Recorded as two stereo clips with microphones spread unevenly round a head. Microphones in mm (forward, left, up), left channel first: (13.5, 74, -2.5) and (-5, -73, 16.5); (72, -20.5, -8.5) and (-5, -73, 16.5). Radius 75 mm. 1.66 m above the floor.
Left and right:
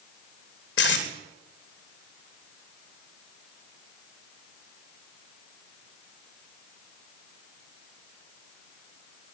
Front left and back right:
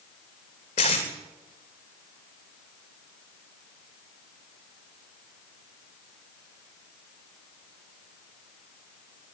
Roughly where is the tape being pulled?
Left.